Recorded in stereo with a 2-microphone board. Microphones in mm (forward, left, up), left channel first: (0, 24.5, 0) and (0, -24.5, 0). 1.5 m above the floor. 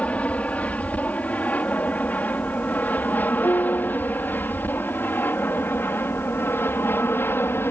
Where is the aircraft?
25° left (ahead or behind); by 7.7 s 50° left (ahead or behind).